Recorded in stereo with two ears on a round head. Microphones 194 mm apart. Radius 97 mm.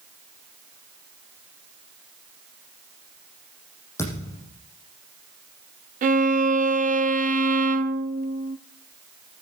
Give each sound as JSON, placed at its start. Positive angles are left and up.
{"t": 4.0, "sound": "a thud", "side_deg": 15, "distance_m": 7.5}
{"t": 6.0, "sound": "a violin", "side_deg": -40, "distance_m": 0.6}